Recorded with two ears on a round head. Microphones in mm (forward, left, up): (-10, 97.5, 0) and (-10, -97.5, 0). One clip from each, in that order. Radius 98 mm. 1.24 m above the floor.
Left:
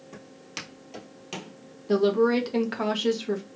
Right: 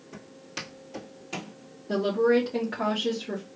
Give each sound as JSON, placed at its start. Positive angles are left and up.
{"t": 0.1, "sound": "footsteps", "side_deg": 15, "distance_m": 1.5}
{"t": 1.9, "sound": "a woman speaking", "side_deg": 60, "distance_m": 1.3}